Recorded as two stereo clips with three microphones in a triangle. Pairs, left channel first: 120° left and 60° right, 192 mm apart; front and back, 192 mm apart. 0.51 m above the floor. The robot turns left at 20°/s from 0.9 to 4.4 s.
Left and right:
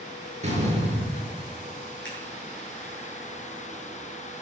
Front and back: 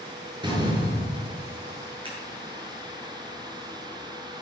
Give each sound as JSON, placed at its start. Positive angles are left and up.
{"t": 0.4, "sound": "a door slam", "azimuth_deg": -115, "distance_m": 6.5}
{"t": 2.0, "sound": "scissors", "azimuth_deg": 115, "distance_m": 9.0}